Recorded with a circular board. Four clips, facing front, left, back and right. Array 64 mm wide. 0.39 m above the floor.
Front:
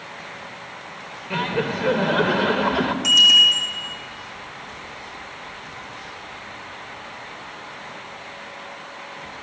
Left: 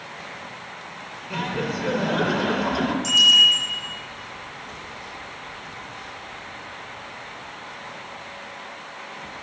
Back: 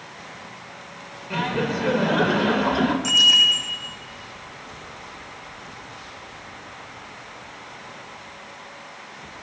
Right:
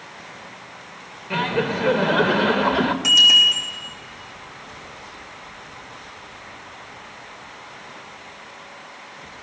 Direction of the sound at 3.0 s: 65° right.